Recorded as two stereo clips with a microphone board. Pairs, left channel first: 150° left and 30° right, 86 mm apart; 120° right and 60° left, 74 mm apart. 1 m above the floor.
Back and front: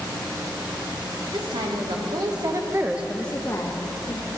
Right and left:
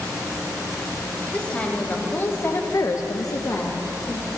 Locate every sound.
1.3 s a woman speaking: 50° right, 2 m; by 4.3 s 170° left, 1.5 m